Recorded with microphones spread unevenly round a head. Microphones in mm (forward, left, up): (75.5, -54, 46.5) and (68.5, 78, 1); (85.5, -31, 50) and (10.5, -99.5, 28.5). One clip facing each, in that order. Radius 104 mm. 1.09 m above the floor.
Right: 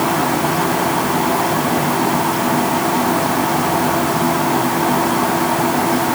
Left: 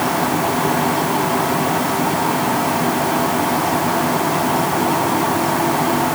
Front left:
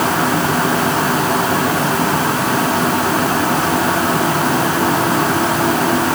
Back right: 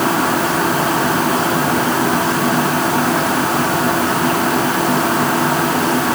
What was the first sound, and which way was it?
Only background noise.